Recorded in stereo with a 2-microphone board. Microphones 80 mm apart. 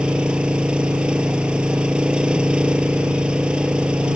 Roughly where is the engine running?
Centre.